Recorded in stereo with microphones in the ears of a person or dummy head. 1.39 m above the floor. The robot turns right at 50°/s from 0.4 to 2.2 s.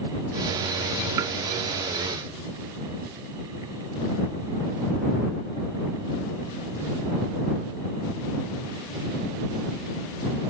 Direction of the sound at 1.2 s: 20° right (ahead or behind).